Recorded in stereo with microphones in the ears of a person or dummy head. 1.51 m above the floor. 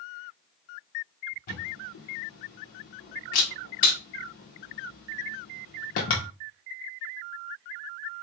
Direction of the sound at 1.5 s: 35° left (ahead or behind).